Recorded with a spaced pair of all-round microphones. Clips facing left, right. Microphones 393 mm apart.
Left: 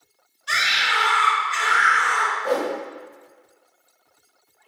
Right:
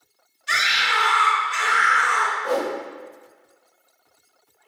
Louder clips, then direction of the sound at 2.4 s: Left 1 dB; 35° left (ahead or behind).